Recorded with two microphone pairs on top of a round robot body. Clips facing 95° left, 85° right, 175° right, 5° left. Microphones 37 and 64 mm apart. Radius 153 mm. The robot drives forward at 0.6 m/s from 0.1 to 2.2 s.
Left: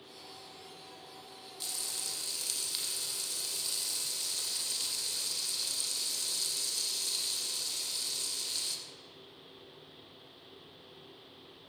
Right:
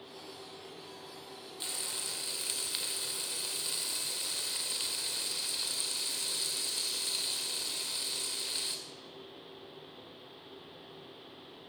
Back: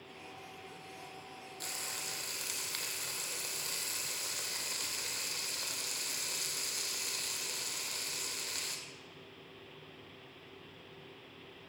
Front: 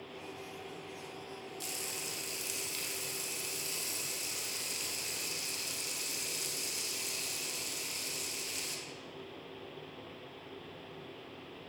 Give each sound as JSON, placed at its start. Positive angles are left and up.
{"t": 1.6, "sound": "frying", "azimuth_deg": -135, "distance_m": 3.0}